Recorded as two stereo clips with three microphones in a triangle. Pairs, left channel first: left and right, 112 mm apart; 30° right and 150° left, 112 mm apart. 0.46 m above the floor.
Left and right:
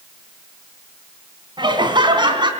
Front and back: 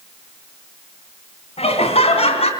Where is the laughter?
45° right, 3.5 m.